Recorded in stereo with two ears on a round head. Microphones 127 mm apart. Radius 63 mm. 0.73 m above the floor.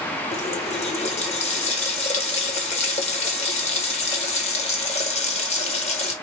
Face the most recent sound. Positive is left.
turn(degrees=55)  # may be behind; listen again after turning